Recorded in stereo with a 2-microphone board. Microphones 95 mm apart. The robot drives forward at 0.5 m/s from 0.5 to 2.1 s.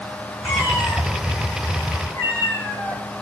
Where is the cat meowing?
35° left (ahead or behind), 8 m; by 3.0 s 30° left (ahead or behind), 8.5 m.